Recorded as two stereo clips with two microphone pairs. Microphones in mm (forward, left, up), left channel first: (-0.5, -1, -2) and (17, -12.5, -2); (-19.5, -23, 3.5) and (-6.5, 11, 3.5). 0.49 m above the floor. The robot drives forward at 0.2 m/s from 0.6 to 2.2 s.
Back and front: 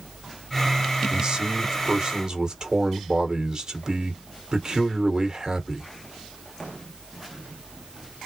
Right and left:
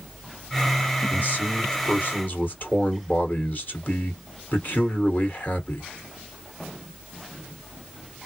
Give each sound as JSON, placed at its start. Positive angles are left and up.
{"t": 1.1, "sound": "a man speaking", "azimuth_deg": -80, "distance_m": 1.9}